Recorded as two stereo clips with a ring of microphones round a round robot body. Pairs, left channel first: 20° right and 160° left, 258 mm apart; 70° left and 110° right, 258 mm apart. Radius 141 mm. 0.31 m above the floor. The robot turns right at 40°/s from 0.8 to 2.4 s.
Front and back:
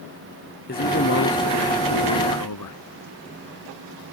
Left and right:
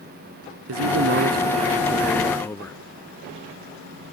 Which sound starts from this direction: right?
A man speaking, at 0.7 s.